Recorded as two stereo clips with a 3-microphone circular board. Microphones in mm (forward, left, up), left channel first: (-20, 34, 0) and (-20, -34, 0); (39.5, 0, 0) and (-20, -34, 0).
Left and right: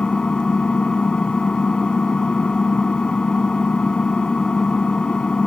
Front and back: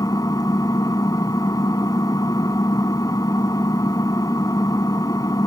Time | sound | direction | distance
0.0 | an engine running | 15° left | ?